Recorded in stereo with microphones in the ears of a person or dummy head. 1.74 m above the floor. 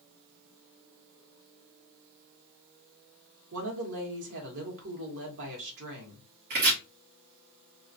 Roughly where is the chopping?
Right.